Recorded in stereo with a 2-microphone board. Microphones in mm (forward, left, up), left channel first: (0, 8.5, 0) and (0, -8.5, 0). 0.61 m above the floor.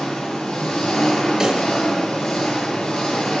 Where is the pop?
25° right (ahead or behind), 6 m.